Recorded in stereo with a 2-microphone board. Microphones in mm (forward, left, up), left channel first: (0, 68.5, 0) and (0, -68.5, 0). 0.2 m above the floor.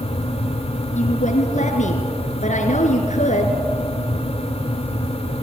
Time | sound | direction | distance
0.9 | a woman speaking | 65° left (ahead or behind) | 2.5 m